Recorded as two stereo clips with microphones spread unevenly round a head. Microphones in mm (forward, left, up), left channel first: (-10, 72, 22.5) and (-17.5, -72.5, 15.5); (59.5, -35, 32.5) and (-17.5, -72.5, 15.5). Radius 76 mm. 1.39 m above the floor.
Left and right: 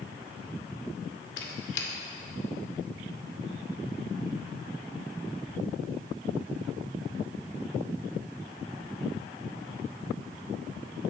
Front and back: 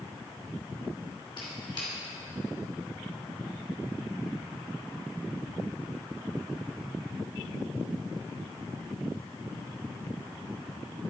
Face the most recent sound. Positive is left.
turn(degrees=85)